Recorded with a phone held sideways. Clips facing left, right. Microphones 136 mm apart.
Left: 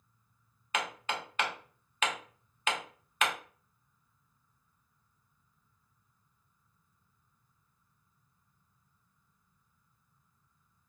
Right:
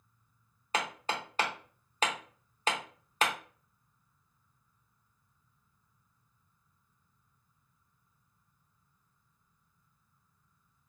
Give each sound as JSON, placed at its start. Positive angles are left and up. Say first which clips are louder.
{"t": 0.7, "sound": "hammering", "louder": "right 1 dB", "side_deg": -35, "distance_m": 0.7}